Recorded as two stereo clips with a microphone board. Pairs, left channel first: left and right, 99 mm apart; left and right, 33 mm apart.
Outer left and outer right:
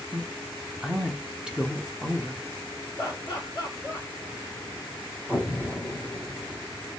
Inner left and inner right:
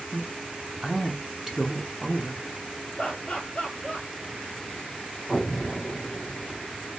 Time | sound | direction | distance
0.1 | a man speaking | 5° right (ahead or behind) | 0.6 m
3.0 | laughter | 30° left (ahead or behind) | 0.9 m
5.3 | an explosion | 5° left (ahead or behind) | 0.7 m